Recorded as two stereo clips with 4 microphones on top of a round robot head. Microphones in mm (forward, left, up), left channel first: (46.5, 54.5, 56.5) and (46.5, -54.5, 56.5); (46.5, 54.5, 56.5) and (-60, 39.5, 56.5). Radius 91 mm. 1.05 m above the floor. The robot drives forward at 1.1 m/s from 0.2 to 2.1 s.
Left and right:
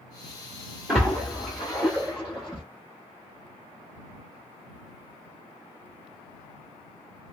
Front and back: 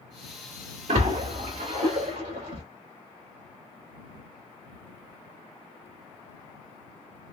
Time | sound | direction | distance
0.9 | a splash | 175° right | 1.5 m